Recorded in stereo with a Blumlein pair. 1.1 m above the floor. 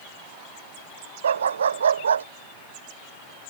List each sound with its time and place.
1.2 s a dog barking: 65° right; by 2.3 s 70° right